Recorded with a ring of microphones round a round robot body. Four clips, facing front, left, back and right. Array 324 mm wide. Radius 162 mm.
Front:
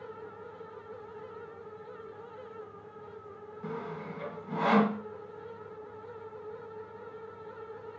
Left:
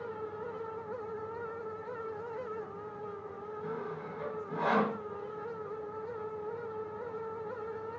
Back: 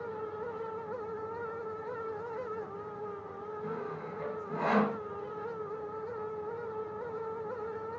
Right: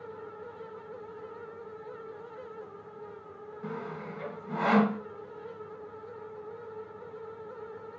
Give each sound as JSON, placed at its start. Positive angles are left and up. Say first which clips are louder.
{"t": 3.6, "sound": "sawing", "louder": "right 2 dB, front 2 dB", "azimuth_deg": -60, "distance_m": 1.0}